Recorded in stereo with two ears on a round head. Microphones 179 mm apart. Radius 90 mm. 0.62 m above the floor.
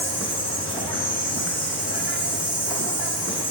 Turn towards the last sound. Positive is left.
turn(degrees=10)  # may be behind; listen again after turning